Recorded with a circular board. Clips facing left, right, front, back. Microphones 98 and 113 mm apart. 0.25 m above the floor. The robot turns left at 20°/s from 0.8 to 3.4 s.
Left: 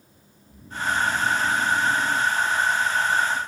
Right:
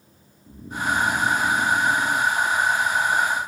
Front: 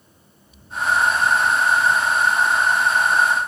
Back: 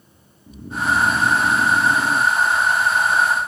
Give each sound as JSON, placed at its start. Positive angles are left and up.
{"t": 0.5, "sound": "snoring", "azimuth_deg": -150}